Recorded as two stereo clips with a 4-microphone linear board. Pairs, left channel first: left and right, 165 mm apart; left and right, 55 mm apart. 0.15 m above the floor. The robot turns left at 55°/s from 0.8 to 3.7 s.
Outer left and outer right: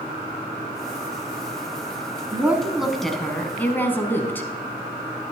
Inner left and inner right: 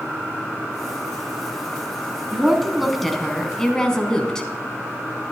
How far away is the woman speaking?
About 1.0 m.